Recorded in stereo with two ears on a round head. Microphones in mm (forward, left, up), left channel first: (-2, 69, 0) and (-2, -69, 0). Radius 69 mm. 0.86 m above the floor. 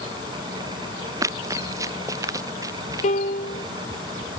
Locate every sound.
1.2 s running footsteps: 20° right (ahead or behind); by 3.1 s 25° right (ahead or behind)
3.0 s a piano: 50° left (ahead or behind)